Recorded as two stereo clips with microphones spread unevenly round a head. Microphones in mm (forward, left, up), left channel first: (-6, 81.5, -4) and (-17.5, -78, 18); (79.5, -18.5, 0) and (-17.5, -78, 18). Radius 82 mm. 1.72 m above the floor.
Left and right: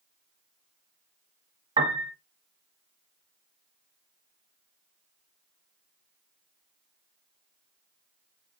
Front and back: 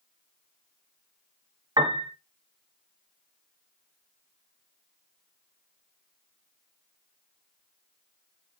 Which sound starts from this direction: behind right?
A piano, at 1.8 s.